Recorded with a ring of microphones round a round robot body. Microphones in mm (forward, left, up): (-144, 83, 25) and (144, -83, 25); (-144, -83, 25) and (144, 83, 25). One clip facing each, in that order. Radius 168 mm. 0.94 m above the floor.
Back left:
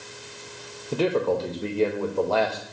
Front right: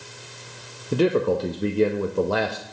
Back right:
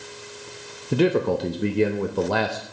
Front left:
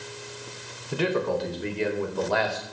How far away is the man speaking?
About 0.8 m.